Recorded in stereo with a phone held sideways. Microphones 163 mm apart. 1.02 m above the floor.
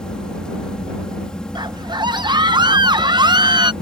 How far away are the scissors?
No scissors in this recording.